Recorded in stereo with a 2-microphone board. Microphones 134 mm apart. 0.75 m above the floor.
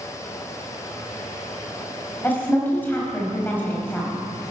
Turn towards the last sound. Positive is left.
turn(degrees=15)  # may be behind; listen again after turning